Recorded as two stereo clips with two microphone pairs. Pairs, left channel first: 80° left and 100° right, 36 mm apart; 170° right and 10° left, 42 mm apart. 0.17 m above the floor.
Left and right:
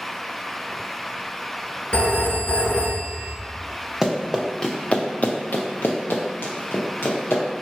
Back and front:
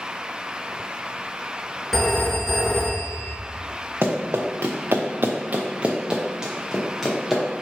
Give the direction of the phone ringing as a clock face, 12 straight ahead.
8 o'clock.